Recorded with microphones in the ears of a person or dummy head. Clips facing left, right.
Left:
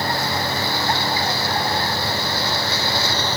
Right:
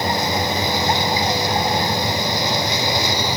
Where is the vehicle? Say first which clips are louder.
Right 3 dB; 15° right (ahead or behind).